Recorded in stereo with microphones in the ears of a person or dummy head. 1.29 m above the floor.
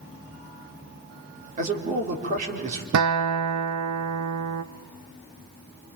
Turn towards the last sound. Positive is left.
turn(degrees=-85)